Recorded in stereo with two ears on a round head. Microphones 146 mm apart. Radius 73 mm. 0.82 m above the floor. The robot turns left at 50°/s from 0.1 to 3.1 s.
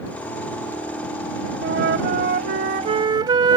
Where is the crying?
No crying in this recording.